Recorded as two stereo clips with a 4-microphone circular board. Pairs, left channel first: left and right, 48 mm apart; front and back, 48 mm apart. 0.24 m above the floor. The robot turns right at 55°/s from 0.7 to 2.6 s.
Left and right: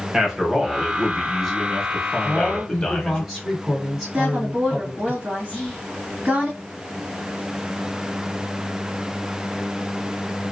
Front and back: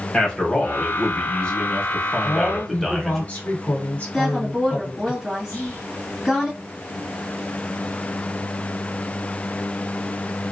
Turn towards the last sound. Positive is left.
turn(degrees=20)